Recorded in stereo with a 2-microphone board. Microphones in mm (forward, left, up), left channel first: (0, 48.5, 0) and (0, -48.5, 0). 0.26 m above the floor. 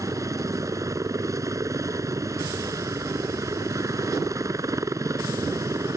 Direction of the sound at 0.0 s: 35° right (ahead or behind).